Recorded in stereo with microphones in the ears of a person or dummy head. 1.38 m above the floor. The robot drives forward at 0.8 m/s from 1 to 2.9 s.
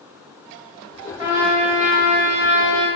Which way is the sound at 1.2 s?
25° right (ahead or behind).